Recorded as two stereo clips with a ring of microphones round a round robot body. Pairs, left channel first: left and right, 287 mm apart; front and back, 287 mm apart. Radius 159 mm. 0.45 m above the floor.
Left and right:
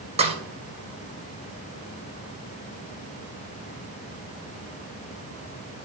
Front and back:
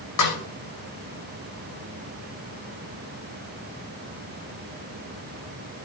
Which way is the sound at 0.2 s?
20° right.